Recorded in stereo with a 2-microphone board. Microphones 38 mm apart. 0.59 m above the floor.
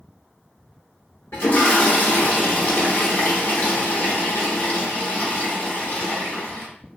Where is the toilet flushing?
65° left (ahead or behind), 0.9 m.